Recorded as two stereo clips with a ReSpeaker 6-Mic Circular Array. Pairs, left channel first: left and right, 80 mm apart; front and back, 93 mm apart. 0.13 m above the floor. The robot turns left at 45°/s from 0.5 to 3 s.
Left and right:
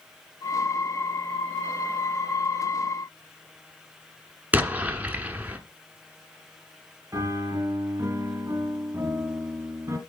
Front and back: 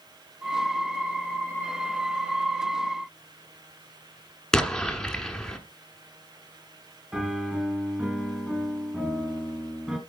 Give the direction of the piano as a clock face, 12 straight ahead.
3 o'clock.